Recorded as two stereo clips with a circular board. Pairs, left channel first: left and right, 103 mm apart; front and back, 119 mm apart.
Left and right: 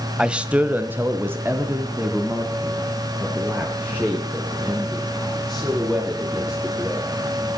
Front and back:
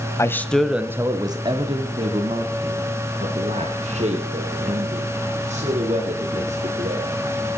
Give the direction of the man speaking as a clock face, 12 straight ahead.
1 o'clock.